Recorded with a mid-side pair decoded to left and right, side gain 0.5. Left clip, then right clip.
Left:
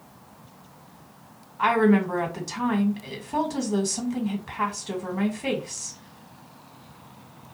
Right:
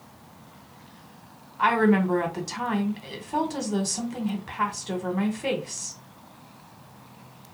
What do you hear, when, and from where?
1.6 s a woman speaking: 5° right, 1.3 m